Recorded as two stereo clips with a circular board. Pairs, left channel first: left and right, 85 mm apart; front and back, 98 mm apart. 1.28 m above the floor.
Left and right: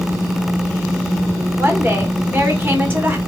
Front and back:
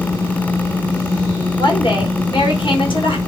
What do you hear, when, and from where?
1.6 s a woman speaking: 25° right, 1.2 m